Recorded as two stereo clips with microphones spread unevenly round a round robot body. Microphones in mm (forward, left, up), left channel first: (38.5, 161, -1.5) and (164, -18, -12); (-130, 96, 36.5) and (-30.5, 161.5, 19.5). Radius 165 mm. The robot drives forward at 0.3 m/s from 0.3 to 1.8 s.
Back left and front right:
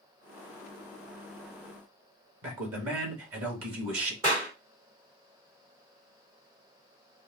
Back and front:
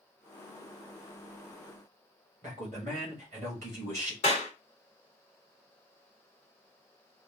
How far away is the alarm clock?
No alarm clock in this recording.